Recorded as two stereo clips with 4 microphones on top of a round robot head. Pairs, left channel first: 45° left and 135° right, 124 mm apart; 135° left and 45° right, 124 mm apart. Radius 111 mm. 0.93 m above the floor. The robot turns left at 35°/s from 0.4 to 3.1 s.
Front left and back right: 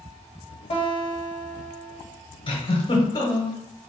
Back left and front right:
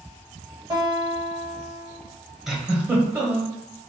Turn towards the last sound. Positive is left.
turn(degrees=20)